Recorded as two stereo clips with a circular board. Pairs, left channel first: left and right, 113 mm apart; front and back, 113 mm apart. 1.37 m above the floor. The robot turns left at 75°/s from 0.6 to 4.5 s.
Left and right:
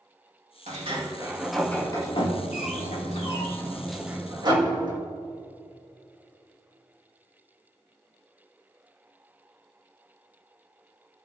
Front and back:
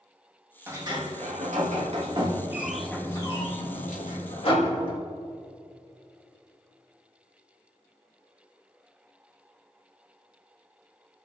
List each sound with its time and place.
0.7 s a sliding door: 115° right, 1.9 m; by 5.0 s 40° right, 1.9 m